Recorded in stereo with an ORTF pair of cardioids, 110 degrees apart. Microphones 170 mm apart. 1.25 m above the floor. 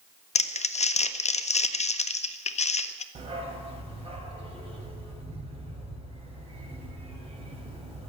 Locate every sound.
0.3 s crumpling: 45° left, 0.6 m
3.1 s a dog barking: 40° right, 2.5 m